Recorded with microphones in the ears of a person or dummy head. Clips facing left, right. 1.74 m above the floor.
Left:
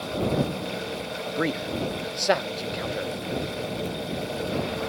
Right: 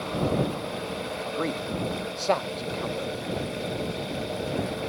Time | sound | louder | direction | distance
1.2 | a man speaking | left 3 dB | 15° left (ahead or behind) | ?